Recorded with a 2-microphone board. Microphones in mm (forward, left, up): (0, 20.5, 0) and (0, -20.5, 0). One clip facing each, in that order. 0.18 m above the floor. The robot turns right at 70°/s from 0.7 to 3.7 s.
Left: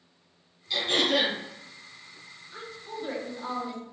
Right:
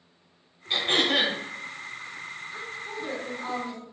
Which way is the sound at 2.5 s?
5° right (ahead or behind).